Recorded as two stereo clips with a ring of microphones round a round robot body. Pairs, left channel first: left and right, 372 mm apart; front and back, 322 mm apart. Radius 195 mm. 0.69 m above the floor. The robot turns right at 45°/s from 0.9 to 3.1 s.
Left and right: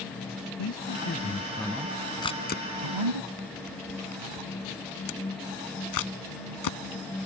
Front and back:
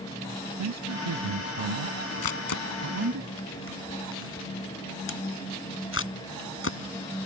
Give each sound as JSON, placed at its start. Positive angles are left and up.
{"t": 0.6, "sound": "a man speaking", "azimuth_deg": 145}
{"t": 2.2, "sound": "a camera shutter", "azimuth_deg": 10}